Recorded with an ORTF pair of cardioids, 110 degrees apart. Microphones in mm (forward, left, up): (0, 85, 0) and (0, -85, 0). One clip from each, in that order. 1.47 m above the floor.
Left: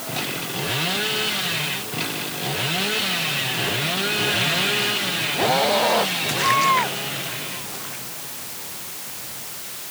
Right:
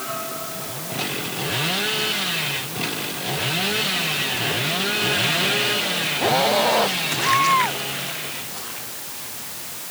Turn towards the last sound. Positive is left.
No sound to turn to.